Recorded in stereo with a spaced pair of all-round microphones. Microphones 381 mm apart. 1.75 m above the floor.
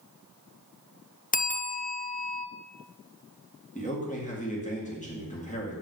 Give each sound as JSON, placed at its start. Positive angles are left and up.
{"t": 1.3, "sound": "a bell", "side_deg": 20, "distance_m": 0.5}
{"t": 3.8, "sound": "a man speaking", "side_deg": 20, "distance_m": 2.5}